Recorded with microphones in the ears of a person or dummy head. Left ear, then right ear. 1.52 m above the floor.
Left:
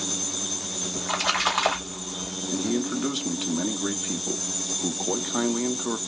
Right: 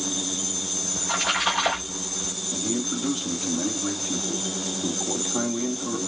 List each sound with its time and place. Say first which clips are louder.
1.0 s a splash: even; 50° left (ahead or behind), 3 m
2.5 s a man speaking: left 3 dB; 75° left (ahead or behind), 1.7 m